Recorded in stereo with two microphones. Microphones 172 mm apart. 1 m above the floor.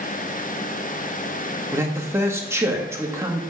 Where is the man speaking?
15° right (ahead or behind), 1.6 m.